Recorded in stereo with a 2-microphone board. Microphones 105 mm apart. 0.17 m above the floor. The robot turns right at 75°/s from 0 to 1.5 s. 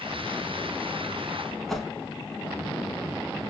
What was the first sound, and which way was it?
A whoosh, centre (ahead or behind).